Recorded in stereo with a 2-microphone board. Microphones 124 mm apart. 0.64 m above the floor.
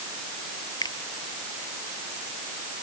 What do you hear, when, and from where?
0.8 s a finger snap: 30° left (ahead or behind)